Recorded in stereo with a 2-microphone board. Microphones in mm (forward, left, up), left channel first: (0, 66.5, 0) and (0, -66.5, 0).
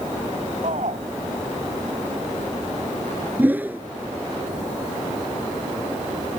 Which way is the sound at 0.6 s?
60° right (ahead or behind).